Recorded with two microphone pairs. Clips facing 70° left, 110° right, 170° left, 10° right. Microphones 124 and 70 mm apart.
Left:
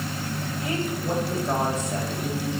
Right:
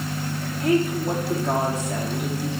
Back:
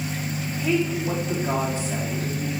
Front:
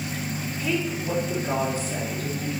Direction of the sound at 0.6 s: 120° right.